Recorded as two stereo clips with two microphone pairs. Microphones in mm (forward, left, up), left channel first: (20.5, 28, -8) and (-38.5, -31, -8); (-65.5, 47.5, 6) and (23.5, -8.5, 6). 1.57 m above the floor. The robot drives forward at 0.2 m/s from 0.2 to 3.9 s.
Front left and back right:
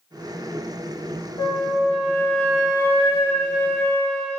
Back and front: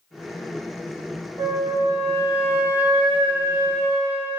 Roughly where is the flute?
Ahead.